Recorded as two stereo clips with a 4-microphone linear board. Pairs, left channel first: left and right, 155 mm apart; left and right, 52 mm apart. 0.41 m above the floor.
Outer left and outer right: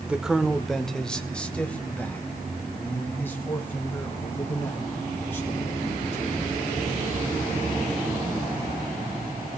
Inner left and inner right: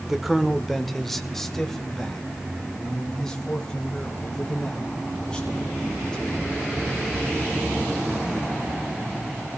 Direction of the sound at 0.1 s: 5° right (ahead or behind).